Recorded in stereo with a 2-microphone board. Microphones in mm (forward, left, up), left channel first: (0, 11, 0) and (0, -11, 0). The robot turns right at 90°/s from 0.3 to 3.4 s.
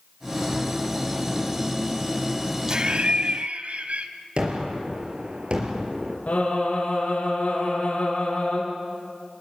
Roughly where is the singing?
Left.